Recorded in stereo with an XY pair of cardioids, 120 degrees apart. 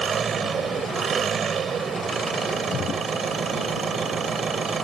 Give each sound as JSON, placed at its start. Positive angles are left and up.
{"t": 0.0, "sound": "an engine running", "azimuth_deg": -40}